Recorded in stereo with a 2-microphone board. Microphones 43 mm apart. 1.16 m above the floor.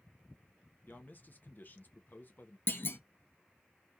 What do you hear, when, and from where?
0.9 s a man speaking: 45° left (ahead or behind), 0.5 m
2.7 s a clunk: 65° left (ahead or behind), 0.5 m